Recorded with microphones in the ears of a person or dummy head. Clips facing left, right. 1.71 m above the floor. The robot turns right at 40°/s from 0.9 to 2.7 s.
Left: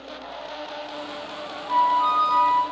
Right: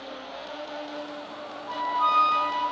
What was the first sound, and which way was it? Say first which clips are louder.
A flute: left 6 dB; 80° right.